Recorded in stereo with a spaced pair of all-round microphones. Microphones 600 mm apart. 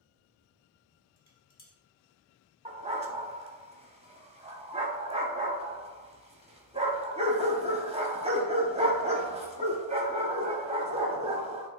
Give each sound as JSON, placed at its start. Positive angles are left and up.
{"t": 1.2, "sound": "dishes clattering", "side_deg": 40, "distance_m": 0.9}
{"t": 2.6, "sound": "a dog barking", "side_deg": -10, "distance_m": 0.7}